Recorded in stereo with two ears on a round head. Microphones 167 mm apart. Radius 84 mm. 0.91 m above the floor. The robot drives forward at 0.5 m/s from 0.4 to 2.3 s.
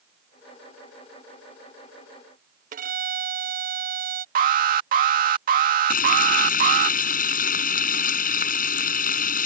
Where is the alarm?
50° right (ahead or behind).